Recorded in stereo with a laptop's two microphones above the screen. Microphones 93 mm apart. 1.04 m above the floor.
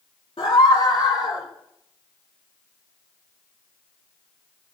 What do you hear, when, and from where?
0.4 s a scream: 70° left (ahead or behind), 2.0 m; by 1.5 s 55° left (ahead or behind), 3.5 m